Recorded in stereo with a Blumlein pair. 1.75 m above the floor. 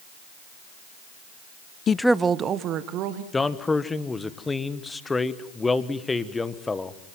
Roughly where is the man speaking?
Ahead.